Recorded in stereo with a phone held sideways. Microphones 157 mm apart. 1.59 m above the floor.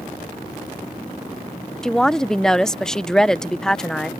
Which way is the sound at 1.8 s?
5° left (ahead or behind).